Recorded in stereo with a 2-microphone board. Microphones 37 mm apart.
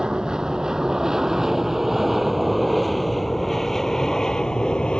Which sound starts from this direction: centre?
An aircraft, at 0.0 s.